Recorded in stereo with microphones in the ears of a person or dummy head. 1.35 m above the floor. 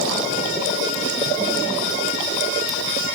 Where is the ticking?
I don't hear ticking.